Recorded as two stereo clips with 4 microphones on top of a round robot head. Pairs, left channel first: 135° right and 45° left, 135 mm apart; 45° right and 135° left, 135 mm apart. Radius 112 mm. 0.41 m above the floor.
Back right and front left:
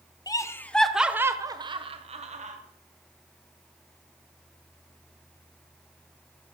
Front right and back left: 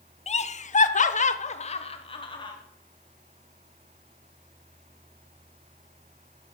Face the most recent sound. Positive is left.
turn(degrees=10)